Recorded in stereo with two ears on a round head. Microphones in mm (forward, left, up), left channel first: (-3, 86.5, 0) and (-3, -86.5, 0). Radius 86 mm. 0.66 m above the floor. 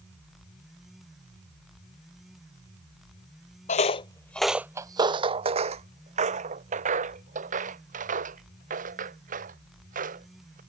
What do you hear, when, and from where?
3.7 s footsteps: 40° left (ahead or behind); by 10.6 s 45° right (ahead or behind)